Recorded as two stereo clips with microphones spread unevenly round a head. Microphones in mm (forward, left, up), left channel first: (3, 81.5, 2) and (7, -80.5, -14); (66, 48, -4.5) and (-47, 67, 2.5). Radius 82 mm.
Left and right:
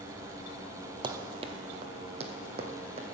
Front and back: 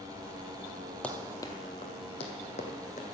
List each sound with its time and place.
1.0 s running footsteps: 85° right, 1.0 m; by 3.0 s 35° right, 2 m